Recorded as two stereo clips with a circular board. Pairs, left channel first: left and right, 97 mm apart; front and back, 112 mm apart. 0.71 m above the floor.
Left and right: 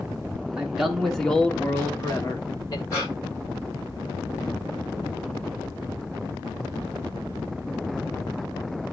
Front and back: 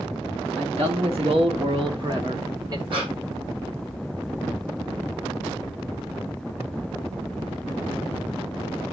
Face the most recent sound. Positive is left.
turn(degrees=145)